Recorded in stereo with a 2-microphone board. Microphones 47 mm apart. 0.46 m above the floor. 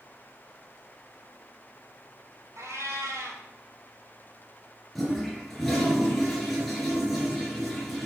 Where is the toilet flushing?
5° left (ahead or behind), 2.5 m.